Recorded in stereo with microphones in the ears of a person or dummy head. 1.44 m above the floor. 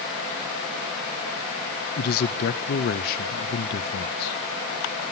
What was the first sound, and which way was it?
A man speaking, 45° left (ahead or behind).